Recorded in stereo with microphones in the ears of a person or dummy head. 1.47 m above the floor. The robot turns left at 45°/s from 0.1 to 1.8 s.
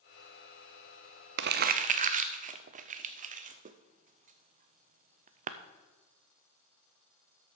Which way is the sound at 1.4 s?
55° right (ahead or behind).